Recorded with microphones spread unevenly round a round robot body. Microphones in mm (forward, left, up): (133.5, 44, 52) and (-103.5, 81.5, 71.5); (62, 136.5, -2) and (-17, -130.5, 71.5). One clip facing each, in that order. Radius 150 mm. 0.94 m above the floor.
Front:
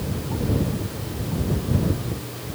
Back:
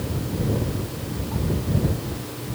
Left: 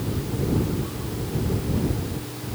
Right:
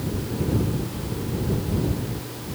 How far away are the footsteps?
I don't hear footsteps.